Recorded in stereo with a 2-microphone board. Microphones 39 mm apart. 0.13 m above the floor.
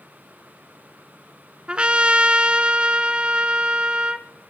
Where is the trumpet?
30° right (ahead or behind), 0.5 m.